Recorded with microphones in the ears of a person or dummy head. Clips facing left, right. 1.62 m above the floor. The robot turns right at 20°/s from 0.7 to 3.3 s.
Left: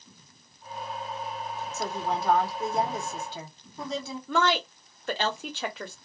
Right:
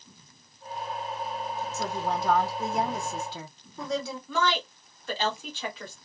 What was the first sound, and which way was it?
A woman speaking, 120° right.